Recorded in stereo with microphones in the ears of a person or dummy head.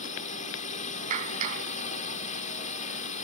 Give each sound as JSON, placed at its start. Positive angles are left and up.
{"t": 0.0, "sound": "a drone", "side_deg": 45}
{"t": 1.1, "sound": "a clap", "side_deg": -40}